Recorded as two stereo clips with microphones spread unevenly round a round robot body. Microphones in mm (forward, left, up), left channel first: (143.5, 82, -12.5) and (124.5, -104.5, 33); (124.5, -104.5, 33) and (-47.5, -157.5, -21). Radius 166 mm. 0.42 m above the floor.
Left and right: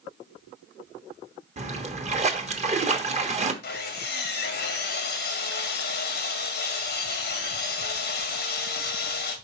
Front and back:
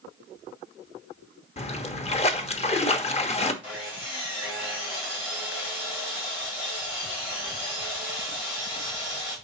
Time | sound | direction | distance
1.6 | a splash | 45° right | 1.2 m
3.6 | sawing | 95° left | 1.4 m